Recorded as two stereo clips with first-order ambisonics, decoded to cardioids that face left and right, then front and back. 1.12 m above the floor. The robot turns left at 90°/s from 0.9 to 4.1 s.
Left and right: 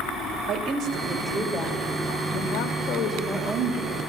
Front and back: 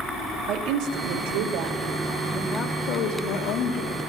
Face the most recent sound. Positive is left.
turn(degrees=-70)